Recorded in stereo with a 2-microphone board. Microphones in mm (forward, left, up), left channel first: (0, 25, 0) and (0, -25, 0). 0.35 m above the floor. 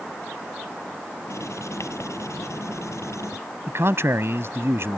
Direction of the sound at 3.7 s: 55° right (ahead or behind).